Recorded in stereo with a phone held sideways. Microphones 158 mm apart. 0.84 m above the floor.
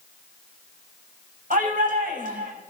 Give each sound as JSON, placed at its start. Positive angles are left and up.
{"t": 1.5, "sound": "a shout", "side_deg": -60, "distance_m": 6.0}